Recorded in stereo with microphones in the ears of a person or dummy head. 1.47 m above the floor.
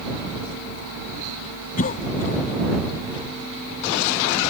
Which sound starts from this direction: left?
A cough, at 1.8 s.